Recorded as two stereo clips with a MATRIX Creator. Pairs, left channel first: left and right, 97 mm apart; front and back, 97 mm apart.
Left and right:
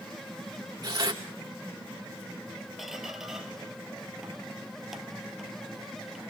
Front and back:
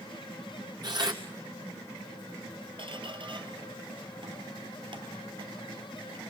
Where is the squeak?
175° right, 1.8 m.